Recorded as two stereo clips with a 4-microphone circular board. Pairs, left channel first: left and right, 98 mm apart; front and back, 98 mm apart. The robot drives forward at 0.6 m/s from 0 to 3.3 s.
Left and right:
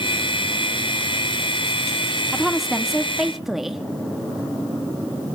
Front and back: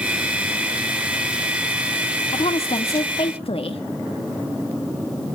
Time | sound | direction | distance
2.3 | a woman speaking | straight ahead | 2 m